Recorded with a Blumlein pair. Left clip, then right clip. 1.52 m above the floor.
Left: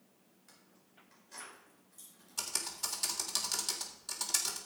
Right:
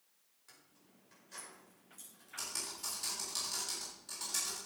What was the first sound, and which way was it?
Keys jangling, straight ahead.